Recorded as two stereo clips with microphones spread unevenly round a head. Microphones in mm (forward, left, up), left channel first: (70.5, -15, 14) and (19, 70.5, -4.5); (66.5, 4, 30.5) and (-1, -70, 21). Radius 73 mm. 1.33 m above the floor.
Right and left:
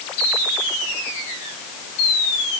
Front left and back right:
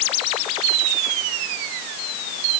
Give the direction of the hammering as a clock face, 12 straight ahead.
No hammering in this recording.